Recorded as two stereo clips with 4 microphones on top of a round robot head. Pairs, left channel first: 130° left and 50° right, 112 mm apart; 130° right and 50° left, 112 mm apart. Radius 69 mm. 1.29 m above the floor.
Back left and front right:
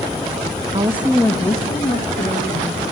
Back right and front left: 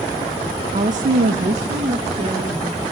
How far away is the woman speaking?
About 0.6 m.